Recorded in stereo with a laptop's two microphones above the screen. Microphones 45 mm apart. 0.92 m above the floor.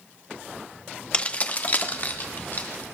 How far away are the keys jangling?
About 0.6 m.